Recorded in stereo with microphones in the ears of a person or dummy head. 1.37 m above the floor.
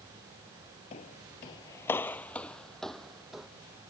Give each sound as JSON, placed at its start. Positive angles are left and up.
{"t": 0.9, "sound": "footsteps", "side_deg": 25}